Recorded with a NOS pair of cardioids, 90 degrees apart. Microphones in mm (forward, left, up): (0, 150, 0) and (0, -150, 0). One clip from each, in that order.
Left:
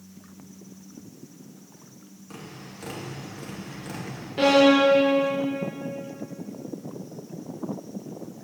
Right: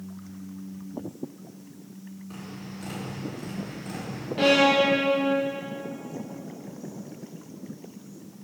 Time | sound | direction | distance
2.3 | tapping | 30° left | 3 m
4.4 | a violin | 15° left | 1.8 m